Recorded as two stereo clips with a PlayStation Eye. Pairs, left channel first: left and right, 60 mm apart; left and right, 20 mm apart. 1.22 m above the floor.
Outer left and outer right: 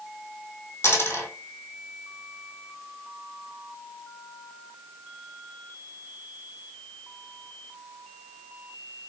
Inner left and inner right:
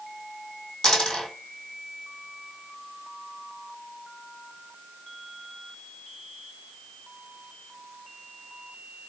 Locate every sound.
0.8 s a dropped coin: 40° left (ahead or behind), 1.7 m